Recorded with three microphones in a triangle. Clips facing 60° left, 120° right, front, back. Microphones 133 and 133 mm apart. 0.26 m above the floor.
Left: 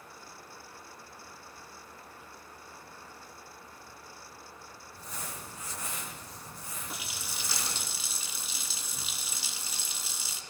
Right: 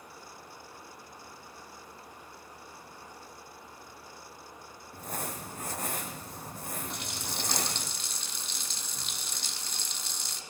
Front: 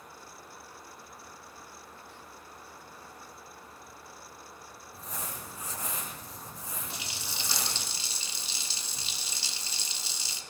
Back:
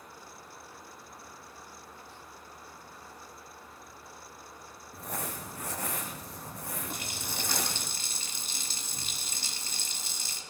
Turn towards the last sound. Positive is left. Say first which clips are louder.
# right 4 dB, back 3 dB
turn(degrees=145)